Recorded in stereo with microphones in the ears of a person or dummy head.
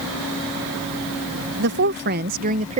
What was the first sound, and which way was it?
A woman speaking, 55° right (ahead or behind).